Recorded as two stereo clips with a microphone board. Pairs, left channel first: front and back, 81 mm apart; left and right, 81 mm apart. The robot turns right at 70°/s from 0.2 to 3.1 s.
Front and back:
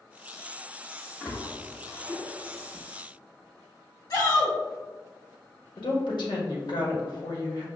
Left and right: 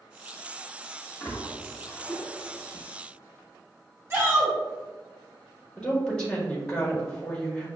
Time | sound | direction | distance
1.2 | a splash | 95° left | 1.2 m
4.1 | a shout | 35° right | 1.7 m
5.8 | a woman speaking | 10° left | 1.2 m